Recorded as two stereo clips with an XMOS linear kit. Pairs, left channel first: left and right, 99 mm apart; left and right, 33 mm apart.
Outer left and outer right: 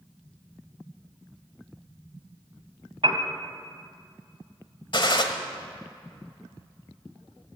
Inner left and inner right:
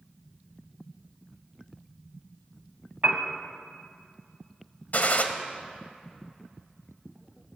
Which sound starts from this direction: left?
A gunshot, at 4.9 s.